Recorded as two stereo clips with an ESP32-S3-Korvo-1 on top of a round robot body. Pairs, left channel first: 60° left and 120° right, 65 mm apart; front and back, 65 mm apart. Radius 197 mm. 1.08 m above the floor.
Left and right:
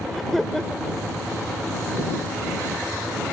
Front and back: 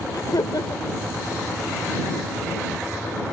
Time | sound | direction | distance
0.1 | laughter | 25° right | ?